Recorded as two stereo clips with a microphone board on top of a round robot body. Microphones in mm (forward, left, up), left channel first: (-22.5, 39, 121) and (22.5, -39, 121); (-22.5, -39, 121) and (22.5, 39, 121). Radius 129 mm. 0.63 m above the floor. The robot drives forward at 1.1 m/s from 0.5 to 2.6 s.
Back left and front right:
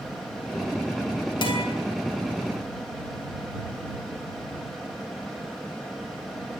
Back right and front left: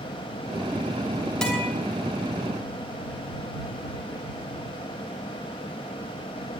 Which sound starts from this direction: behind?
A guitar, at 1.4 s.